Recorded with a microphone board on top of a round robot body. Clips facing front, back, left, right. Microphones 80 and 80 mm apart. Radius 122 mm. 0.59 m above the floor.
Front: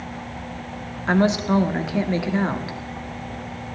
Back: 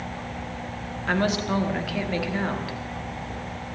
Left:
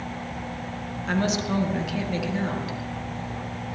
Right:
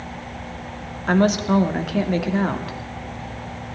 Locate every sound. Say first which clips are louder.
1.1 s a woman speaking: front 5 dB, right 7 dB; 65° right, 2.0 m